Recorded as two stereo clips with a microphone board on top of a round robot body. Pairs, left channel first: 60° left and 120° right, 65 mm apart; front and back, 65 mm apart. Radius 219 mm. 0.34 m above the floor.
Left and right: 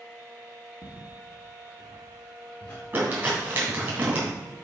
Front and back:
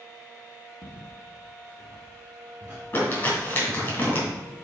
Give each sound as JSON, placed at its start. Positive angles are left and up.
{"t": 0.8, "sound": "footsteps", "azimuth_deg": 110, "distance_m": 3.5}
{"t": 2.9, "sound": "crumpling", "azimuth_deg": -65, "distance_m": 3.5}